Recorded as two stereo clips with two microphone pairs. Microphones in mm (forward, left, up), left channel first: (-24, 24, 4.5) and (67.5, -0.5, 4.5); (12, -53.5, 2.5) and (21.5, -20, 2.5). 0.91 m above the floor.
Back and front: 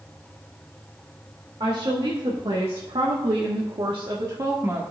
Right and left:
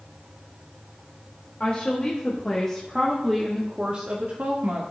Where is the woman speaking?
50° right, 2.5 m; by 4.8 s 45° left, 1.8 m.